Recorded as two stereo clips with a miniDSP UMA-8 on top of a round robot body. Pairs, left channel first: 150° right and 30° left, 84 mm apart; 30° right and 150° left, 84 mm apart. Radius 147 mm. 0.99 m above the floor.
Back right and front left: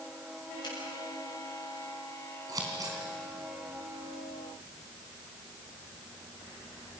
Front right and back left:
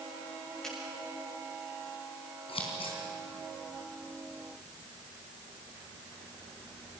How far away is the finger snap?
About 7 m.